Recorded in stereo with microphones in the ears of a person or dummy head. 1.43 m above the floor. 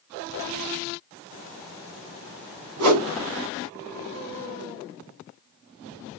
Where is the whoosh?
85° right, 1.9 m.